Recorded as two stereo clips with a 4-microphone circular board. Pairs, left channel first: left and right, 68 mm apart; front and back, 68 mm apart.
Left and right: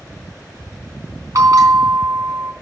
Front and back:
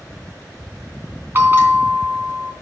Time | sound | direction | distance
1.4 | a bell | 125° right | 3 m